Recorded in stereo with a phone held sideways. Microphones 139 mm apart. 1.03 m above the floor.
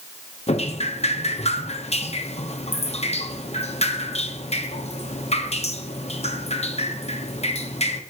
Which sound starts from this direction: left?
Dripping, at 0.5 s.